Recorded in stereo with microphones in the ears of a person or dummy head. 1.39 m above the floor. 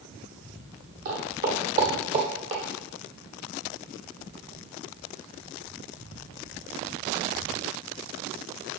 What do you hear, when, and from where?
1.1 s footsteps: 45° right (ahead or behind), 2 m; by 2.6 s 20° right (ahead or behind), 1.4 m